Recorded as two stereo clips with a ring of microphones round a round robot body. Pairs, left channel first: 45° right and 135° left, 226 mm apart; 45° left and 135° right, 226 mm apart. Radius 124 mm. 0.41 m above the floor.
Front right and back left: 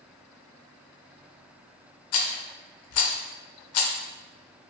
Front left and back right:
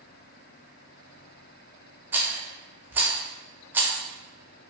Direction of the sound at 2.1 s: 55° right.